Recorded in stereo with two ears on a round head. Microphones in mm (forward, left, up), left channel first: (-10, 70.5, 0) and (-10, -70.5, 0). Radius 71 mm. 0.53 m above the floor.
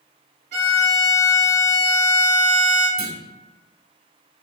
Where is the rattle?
I don't hear a rattle.